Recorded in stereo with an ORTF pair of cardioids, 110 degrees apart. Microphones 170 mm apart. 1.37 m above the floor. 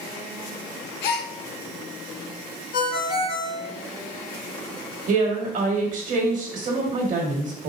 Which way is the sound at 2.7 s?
55° left.